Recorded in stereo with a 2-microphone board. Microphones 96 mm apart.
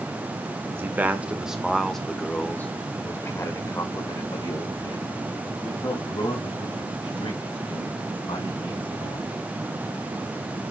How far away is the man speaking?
About 1.4 m.